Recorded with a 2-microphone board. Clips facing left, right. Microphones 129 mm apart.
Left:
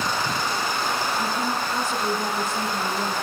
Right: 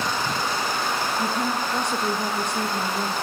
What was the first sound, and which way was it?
A woman speaking, 5° left (ahead or behind).